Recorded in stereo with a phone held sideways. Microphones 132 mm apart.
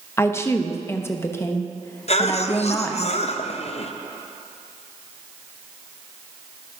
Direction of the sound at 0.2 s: 20° left (ahead or behind).